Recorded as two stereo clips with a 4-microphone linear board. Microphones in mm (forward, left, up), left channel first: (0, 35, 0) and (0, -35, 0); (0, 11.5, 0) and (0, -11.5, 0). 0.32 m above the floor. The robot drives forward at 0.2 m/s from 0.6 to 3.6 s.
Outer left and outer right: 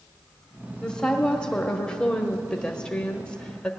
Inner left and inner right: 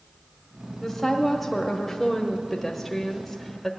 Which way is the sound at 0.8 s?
10° left (ahead or behind).